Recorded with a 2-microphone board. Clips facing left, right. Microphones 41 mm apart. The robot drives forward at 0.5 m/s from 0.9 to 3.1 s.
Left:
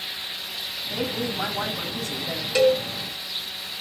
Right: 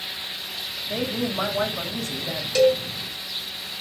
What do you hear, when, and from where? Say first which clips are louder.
0.9 s a woman speaking: right 2 dB; 70° right (ahead or behind), 5 m; by 2.5 s 60° right (ahead or behind), 5.5 m
2.5 s a cowbell: right 1 dB; 15° left (ahead or behind), 1.5 m